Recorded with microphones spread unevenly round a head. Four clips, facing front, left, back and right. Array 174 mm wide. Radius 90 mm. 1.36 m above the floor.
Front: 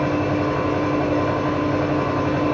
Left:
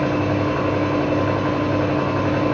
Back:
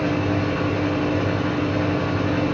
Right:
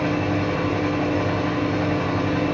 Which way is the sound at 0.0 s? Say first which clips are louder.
Left 3 dB, front 2 dB; 60° left.